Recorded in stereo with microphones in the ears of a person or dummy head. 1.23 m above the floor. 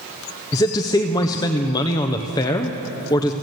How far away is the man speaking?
About 0.5 m.